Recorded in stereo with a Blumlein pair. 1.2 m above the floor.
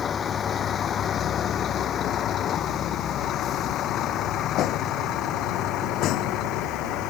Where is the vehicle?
25° left; by 7.1 s 40° left.